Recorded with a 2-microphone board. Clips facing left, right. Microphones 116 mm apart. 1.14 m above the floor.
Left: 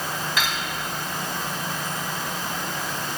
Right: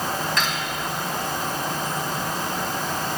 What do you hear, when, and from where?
0.4 s cutlery clinking: 5° left (ahead or behind), 4.5 m